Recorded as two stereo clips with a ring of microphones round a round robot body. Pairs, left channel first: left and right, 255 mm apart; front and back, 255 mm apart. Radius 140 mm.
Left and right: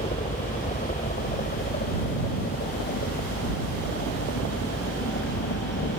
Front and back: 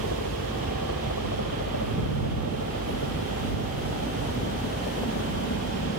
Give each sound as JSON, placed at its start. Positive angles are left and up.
{"t": 0.0, "sound": "a helicopter", "azimuth_deg": 30}